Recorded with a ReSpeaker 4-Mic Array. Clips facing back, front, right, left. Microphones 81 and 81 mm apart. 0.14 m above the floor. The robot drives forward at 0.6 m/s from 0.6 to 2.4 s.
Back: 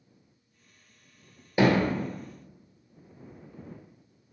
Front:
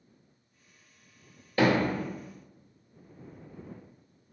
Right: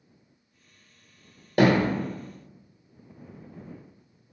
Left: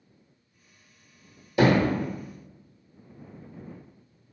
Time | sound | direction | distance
1.6 | hammering | 105° right | 1.2 m